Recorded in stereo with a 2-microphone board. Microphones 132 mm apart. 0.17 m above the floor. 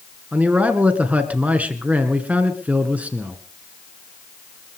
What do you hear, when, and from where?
0.3 s a man speaking: 10° right (ahead or behind), 2.5 m